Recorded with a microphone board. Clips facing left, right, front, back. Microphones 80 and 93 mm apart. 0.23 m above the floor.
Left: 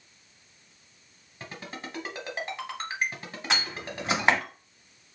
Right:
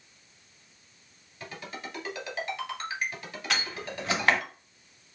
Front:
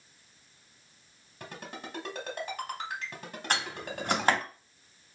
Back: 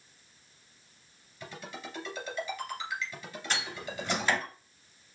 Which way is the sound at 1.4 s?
30° left.